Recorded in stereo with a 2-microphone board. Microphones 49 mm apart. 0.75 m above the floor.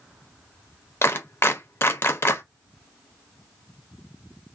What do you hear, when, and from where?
1.0 s a clap: 45° left (ahead or behind), 0.6 m